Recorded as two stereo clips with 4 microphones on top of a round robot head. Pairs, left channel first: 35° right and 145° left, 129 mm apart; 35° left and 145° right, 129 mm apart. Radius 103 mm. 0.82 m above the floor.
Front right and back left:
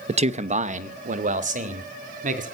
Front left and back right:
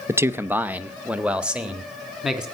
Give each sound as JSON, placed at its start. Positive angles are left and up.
{"t": 0.1, "sound": "a man speaking", "azimuth_deg": 150, "distance_m": 0.8}